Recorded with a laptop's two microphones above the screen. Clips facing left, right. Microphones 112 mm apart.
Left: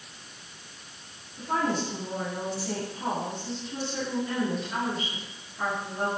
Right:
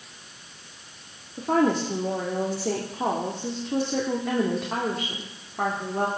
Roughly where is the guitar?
I don't hear a guitar.